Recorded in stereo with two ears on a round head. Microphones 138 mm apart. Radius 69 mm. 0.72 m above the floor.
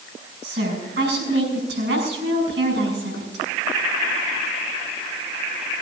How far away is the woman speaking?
About 6.5 m.